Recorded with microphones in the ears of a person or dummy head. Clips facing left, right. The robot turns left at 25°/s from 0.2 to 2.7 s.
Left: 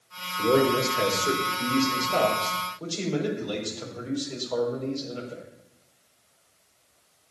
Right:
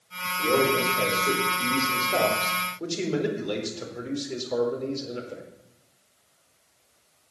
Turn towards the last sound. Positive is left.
turn(degrees=-25)